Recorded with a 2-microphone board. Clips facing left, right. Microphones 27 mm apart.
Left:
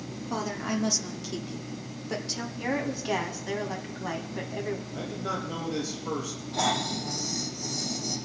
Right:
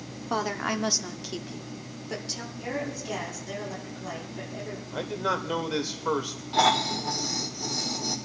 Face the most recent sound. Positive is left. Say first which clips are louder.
# right 5 dB
turn(degrees=-45)  # may be behind; listen again after turning